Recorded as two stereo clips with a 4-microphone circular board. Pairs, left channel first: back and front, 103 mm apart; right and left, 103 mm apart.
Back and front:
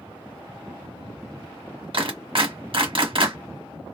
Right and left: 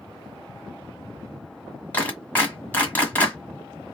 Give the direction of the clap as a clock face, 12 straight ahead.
1 o'clock.